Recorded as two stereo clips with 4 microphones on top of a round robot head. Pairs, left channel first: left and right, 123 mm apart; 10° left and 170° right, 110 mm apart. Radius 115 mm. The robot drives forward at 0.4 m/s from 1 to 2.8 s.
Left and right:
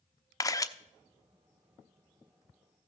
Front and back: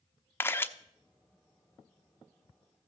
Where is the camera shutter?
60° left, 0.9 m.